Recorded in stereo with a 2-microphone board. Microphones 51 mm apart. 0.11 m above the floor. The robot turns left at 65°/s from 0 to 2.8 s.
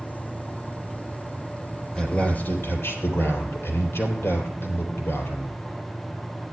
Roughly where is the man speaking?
Behind.